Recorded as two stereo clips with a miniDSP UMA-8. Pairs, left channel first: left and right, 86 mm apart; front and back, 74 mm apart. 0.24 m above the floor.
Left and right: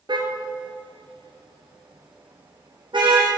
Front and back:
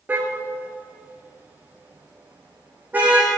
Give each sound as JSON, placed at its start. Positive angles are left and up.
{"t": 0.1, "sound": "a car horn", "azimuth_deg": -115, "distance_m": 2.0}